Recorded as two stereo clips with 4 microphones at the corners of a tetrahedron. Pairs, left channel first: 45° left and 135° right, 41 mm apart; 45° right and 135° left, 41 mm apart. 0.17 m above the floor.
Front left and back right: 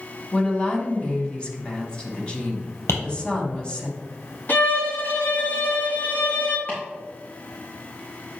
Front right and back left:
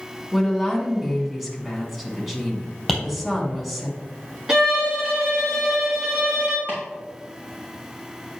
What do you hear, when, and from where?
0.3 s a woman speaking: 50° left, 1.2 m
2.9 s tapping: 45° left, 2.5 m
4.5 s a violin: 65° left, 1.7 m
6.7 s chopping: 100° left, 3 m